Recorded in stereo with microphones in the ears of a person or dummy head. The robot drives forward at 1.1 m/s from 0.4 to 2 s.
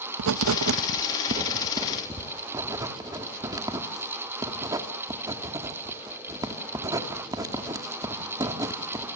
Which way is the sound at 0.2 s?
80° right.